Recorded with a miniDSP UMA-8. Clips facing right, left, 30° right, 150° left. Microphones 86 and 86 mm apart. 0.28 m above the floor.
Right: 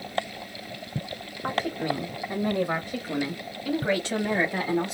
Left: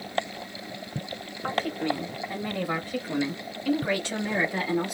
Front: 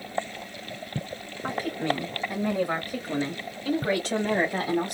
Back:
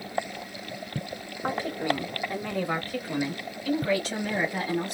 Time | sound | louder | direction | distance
1.4 | a woman speaking | even, even | 160° right | 1.1 m